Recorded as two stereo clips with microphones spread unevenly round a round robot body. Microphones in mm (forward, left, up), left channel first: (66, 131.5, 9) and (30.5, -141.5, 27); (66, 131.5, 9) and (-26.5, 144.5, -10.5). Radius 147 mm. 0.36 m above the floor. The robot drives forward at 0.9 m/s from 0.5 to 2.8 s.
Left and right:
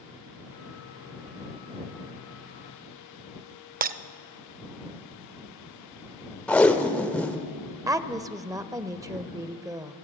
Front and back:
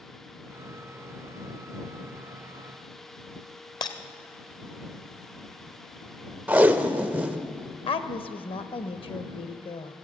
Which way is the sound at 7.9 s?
20° right.